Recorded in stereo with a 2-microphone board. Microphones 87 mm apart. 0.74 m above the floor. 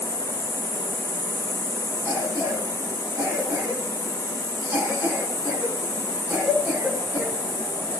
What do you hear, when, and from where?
0.0 s an insect: 40° right (ahead or behind), 9.5 m
2.0 s a cough: 25° right (ahead or behind), 8 m